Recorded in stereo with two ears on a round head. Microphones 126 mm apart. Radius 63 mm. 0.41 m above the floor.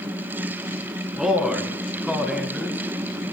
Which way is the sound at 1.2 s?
5° right (ahead or behind).